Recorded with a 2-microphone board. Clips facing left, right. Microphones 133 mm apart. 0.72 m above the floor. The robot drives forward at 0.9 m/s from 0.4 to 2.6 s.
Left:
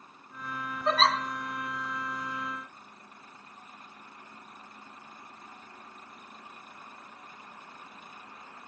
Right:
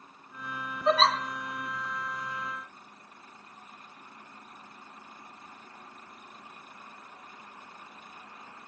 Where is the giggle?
5° right (ahead or behind), 3.5 m.